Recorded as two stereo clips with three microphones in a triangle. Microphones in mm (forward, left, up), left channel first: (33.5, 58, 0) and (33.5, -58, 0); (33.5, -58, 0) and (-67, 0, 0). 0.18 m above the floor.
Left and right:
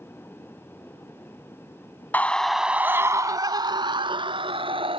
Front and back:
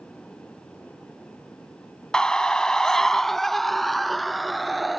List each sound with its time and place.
2.1 s a scream: 45° left; by 5.0 s 120° right